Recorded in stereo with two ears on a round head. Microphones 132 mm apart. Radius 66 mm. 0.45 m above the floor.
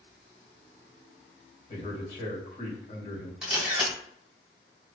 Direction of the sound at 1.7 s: 40° left (ahead or behind).